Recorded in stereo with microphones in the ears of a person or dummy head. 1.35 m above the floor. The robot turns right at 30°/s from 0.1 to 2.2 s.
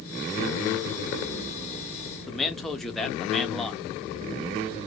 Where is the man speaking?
Centre (ahead or behind), 0.5 m.